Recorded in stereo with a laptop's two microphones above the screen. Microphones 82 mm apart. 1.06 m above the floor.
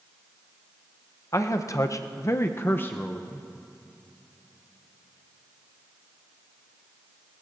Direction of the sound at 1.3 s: 45° left (ahead or behind).